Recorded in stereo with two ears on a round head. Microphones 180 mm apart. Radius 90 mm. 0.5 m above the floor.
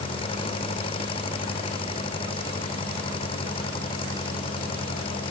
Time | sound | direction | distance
0.0 | an engine running | 25° left (ahead or behind) | ?